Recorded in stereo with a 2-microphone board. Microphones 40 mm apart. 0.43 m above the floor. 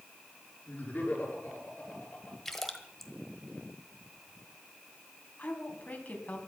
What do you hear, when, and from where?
0.7 s laughter: 40° left (ahead or behind), 7 m
2.5 s a splash: 5° left (ahead or behind), 1.3 m
5.4 s a woman speaking: 35° left (ahead or behind), 3.5 m